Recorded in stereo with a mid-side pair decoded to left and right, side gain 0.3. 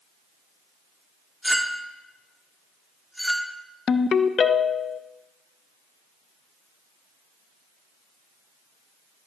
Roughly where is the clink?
Ahead.